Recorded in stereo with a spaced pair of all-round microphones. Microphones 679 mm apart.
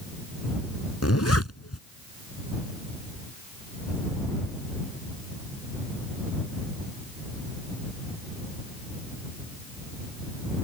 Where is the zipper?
20° left (ahead or behind).